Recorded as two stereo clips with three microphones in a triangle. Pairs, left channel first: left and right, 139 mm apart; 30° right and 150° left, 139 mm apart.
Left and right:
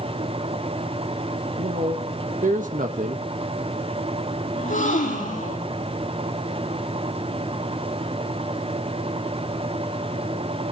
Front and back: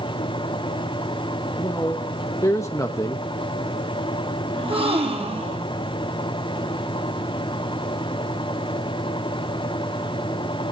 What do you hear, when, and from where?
1.6 s a man speaking: 100° right, 1.0 m
4.5 s a gasp: 105° left, 8 m